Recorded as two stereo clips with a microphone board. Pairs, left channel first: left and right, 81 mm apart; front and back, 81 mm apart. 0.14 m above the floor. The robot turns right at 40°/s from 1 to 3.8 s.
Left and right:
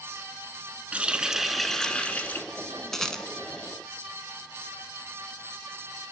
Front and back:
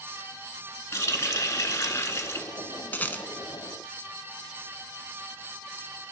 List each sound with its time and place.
0.9 s a running tap: 25° right, 0.9 m; by 2.5 s 35° left, 0.9 m
2.9 s a rattle: 10° left, 0.8 m; by 3.3 s 25° left, 0.8 m